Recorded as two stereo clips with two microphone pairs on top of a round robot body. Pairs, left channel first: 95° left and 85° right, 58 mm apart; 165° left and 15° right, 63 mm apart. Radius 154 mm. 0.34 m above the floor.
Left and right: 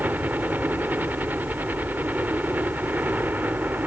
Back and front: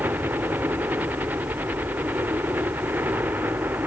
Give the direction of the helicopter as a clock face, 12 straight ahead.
1 o'clock.